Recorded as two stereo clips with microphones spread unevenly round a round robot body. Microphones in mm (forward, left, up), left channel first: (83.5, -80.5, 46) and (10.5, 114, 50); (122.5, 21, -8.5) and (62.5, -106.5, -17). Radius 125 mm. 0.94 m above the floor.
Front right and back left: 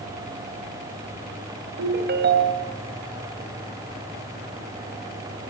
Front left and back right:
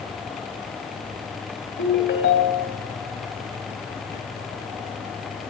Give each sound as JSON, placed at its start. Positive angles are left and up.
{"t": 1.8, "sound": "a ringtone", "azimuth_deg": 75, "distance_m": 3.5}